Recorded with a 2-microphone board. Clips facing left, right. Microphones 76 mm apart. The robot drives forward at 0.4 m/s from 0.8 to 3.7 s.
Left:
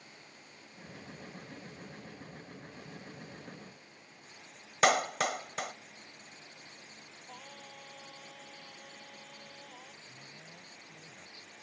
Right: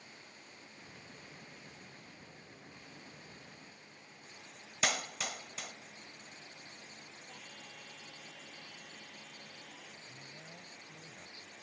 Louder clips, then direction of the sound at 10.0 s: Even; 25° right (ahead or behind).